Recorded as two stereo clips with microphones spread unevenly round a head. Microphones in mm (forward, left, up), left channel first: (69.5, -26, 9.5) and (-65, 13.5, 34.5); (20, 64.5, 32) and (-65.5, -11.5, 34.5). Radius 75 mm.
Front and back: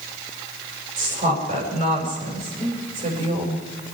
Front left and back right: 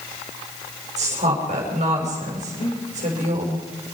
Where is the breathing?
75° left, 6 m.